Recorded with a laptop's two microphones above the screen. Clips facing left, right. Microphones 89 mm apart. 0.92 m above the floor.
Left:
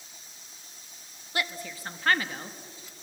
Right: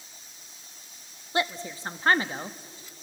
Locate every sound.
1.3 s a woman speaking: 25° right (ahead or behind), 1.2 m